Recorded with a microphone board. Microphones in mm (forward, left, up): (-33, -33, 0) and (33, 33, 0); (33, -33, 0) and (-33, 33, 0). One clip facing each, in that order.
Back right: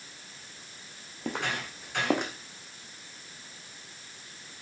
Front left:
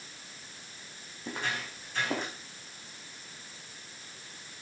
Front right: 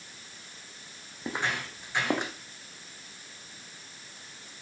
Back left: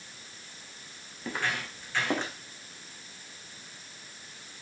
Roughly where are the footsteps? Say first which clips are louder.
Back right 3 dB, front right 1 dB; behind right.